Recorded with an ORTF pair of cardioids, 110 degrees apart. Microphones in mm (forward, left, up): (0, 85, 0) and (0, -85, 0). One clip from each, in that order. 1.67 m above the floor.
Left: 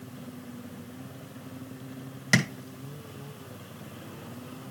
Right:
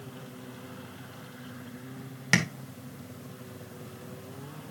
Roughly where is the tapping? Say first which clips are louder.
Left 1 dB; ahead.